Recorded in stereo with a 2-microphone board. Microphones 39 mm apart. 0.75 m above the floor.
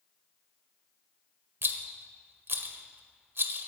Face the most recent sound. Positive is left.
turn(degrees=-65)  # may be behind; listen again after turning